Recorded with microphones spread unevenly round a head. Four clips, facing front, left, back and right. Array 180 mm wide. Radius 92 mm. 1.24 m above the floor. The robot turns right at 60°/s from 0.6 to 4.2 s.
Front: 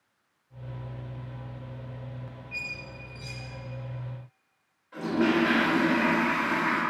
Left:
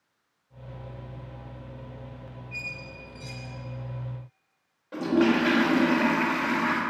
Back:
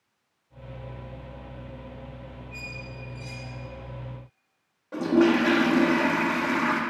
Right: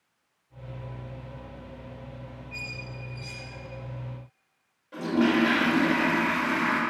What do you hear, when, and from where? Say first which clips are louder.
2.5 s a squeak: even, back 1 dB; straight ahead, 3.5 m; by 3.5 s 65° left, 3.5 m
4.9 s a toilet flushing: left 1 dB, back 5 dB; 150° left, 1.5 m